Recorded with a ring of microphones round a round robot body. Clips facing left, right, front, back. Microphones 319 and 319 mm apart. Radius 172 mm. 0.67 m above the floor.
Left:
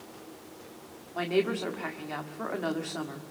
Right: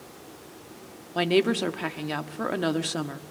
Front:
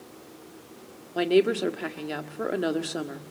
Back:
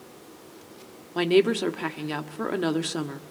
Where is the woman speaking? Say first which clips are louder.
Right 5 dB, back 1 dB; 105° right, 1.5 m.